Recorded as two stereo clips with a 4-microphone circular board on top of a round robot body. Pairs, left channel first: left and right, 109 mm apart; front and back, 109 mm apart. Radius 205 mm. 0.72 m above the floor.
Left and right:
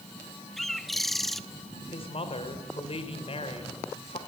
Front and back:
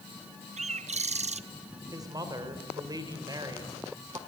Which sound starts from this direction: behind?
A bird, at 0.6 s.